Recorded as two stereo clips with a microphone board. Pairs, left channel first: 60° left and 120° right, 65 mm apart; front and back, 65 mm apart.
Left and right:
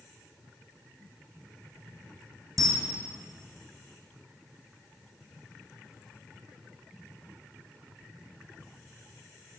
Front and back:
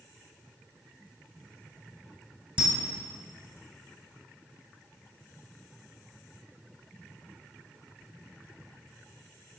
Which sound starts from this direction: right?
A camera shutter, at 2.6 s.